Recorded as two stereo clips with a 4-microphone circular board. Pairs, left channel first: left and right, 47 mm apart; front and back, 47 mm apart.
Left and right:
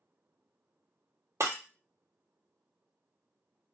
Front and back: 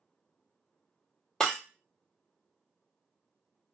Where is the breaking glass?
75° right, 0.6 m.